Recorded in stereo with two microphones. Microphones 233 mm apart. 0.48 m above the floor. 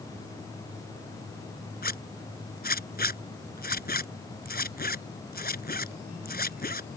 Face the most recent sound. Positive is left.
turn(degrees=40)  # may be behind; listen again after turning